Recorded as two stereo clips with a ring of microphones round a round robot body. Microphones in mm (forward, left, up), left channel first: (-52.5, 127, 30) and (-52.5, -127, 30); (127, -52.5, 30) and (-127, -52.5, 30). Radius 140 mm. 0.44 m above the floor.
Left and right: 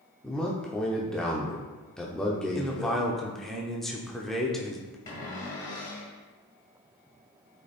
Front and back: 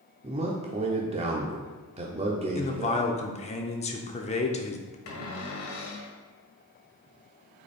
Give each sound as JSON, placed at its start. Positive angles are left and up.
{"t": 0.2, "sound": "a man speaking", "azimuth_deg": 175, "distance_m": 0.8}
{"t": 2.5, "sound": "a man speaking", "azimuth_deg": 5, "distance_m": 0.8}
{"t": 5.1, "sound": "a cupboard door", "azimuth_deg": 15, "distance_m": 1.7}